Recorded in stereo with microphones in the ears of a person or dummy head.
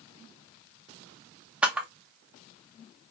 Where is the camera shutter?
Centre (ahead or behind), 0.6 m.